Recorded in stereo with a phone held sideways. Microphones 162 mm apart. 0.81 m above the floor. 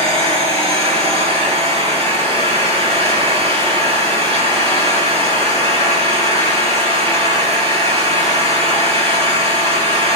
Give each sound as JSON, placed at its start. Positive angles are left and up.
{"t": 0.0, "sound": "an engine running", "side_deg": -40, "distance_m": 7.0}